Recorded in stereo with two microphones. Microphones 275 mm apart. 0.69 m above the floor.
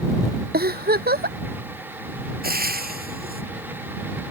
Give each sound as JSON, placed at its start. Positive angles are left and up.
{"t": 0.5, "sound": "a giggle", "side_deg": -35}
{"t": 2.4, "sound": "frying", "side_deg": -35}